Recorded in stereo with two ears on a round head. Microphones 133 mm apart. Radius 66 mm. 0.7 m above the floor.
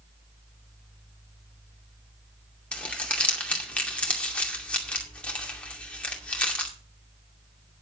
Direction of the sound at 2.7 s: 10° left (ahead or behind).